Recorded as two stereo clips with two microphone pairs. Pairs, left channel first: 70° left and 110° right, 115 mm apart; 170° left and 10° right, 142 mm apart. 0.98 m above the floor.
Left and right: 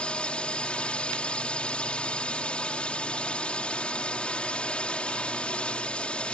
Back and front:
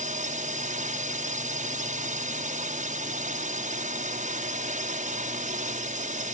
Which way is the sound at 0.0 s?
10° right.